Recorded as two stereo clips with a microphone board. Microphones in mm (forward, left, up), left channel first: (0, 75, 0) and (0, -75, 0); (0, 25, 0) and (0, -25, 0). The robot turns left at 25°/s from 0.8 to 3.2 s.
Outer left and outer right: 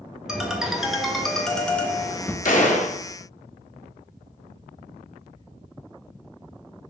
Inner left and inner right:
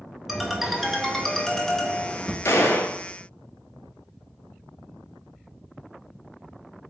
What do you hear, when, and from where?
0.3 s a ringtone: 5° right (ahead or behind), 0.5 m; by 2.4 s 15° left (ahead or behind), 0.5 m
2.5 s a gunshot: 60° left (ahead or behind), 0.5 m; by 3.0 s 55° left (ahead or behind), 0.5 m